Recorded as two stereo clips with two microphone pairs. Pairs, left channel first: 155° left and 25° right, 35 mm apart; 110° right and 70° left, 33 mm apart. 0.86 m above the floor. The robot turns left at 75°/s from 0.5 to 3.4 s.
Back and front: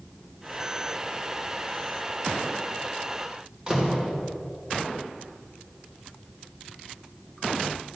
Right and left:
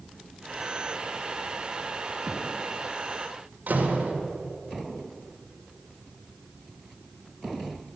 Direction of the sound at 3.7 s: 40° left.